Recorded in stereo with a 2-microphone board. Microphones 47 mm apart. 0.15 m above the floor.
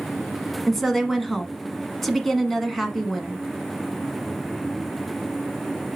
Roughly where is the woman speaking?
Centre.